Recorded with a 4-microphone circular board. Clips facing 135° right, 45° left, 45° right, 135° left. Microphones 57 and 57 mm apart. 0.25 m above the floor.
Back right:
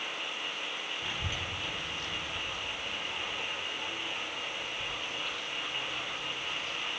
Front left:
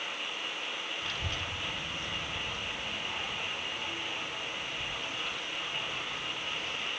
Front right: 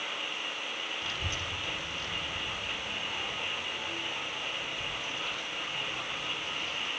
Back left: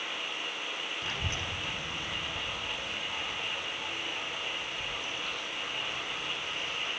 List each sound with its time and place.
1.0 s a child speaking: 165° left, 1.0 m; by 6.9 s 15° left, 4 m